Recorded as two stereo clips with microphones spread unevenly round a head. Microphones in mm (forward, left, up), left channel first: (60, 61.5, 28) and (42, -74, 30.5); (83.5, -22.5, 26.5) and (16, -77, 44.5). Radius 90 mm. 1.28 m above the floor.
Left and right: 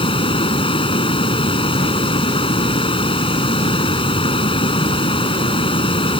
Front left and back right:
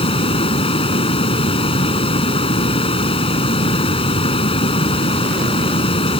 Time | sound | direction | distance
0.0 | running water | 30° left | ?